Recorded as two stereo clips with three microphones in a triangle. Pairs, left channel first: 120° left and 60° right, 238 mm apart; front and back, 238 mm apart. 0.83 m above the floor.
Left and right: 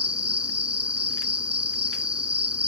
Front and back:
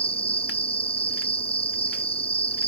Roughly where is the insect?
Ahead right.